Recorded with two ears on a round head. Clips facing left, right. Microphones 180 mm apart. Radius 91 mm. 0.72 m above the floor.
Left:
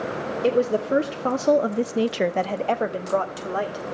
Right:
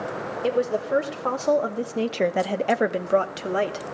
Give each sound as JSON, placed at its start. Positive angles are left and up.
{"t": 0.4, "sound": "a woman speaking", "side_deg": 35, "distance_m": 1.9}